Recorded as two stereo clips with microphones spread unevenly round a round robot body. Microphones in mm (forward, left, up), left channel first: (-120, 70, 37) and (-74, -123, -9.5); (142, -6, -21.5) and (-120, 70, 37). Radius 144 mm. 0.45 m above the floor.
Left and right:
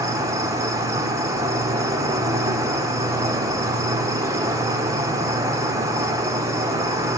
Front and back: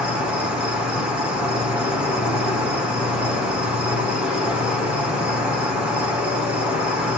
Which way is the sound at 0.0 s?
90° right.